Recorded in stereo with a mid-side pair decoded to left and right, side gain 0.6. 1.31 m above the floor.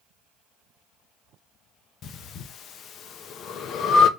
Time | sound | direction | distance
2.0 | breathing | 50° left | 0.5 m